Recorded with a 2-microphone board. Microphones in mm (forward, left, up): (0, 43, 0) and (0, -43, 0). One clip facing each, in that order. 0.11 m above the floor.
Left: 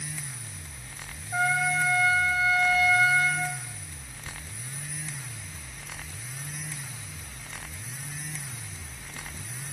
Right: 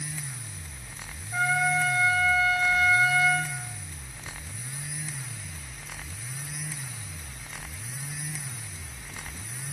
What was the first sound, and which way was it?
A trumpet, 20° left (ahead or behind).